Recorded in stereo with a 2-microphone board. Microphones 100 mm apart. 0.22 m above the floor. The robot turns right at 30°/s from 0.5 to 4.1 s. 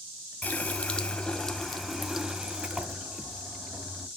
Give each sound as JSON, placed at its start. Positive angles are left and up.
{"t": 0.4, "sound": "a running tap", "side_deg": 15, "distance_m": 0.6}